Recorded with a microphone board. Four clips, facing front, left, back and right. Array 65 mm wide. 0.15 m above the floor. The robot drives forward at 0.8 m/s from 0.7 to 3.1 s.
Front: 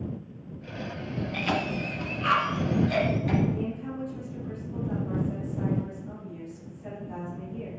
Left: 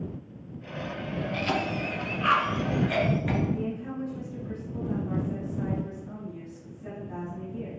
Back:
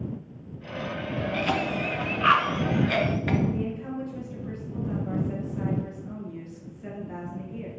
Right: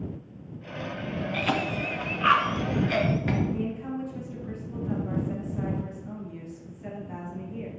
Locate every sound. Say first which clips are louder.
1.3 s a cough: right 1 dB, back 1 dB; 85° right, 1.1 m; by 3.4 s 160° right, 1.7 m
3.5 s a woman speaking: right 1 dB, back 1 dB; 130° right, 3.5 m